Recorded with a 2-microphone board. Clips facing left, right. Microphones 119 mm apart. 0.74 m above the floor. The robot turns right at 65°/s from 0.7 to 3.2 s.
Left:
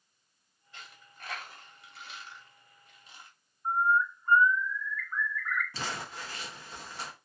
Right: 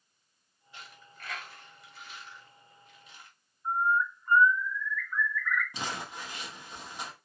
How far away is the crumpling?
About 0.8 m.